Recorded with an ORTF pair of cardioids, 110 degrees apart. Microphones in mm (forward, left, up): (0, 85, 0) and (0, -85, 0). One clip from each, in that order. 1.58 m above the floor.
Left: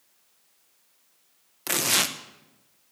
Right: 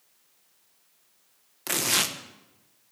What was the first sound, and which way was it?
Tearing paper, 10° left.